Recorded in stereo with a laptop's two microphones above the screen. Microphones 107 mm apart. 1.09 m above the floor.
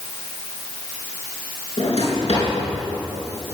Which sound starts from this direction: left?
A drawer, at 1.8 s.